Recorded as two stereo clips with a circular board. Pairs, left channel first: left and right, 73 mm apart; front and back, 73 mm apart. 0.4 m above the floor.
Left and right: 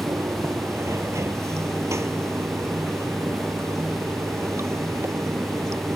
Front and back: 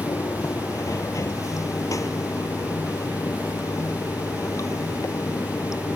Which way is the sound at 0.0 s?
40° right.